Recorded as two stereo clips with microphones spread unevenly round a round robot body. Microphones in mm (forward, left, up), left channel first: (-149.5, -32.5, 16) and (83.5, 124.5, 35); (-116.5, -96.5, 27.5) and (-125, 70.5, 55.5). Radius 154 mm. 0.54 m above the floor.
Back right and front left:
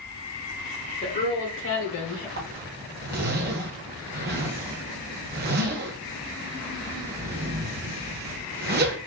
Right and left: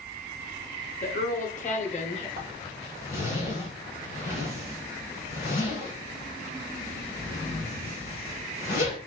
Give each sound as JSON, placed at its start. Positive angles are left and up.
{"t": 1.0, "sound": "a woman speaking", "azimuth_deg": -80, "distance_m": 1.2}
{"t": 2.4, "sound": "a zipper", "azimuth_deg": -25, "distance_m": 0.5}